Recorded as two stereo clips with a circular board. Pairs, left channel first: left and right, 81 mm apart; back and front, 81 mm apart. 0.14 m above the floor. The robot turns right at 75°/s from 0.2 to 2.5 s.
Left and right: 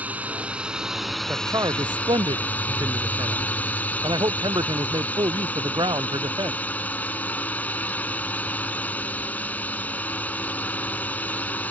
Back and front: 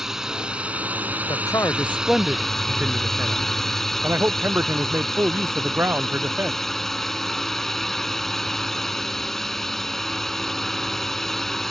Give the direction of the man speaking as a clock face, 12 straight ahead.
5 o'clock.